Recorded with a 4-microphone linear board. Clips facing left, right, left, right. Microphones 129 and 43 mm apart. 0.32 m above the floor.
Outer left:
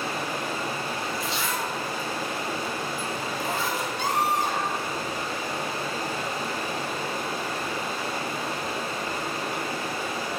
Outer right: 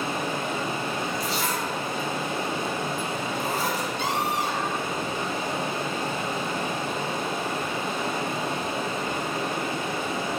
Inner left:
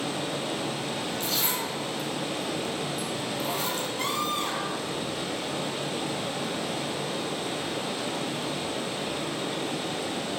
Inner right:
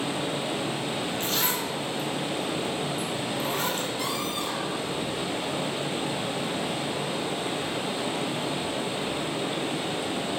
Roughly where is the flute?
No flute in this recording.